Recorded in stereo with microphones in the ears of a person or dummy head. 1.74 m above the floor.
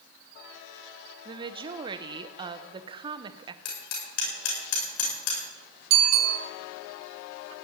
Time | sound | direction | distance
1.2 | a woman speaking | 30° right (ahead or behind) | 1.1 m
3.6 | hammering | 70° left (ahead or behind) | 7.5 m
5.9 | a bicycle bell | 60° right (ahead or behind) | 3.5 m